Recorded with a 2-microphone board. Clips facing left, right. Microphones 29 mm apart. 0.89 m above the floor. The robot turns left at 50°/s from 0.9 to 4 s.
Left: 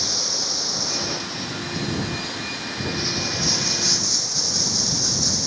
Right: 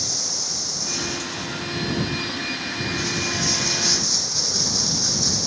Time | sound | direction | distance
0.0 | running water | 150° left | ?